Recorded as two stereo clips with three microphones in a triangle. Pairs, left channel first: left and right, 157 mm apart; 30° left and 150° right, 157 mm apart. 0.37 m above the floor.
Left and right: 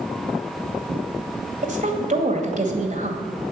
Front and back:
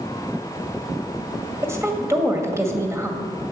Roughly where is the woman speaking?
Right.